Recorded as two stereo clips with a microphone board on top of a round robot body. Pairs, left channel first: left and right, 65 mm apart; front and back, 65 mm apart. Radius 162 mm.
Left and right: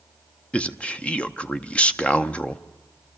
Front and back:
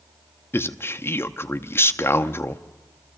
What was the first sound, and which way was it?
A man speaking, 25° left.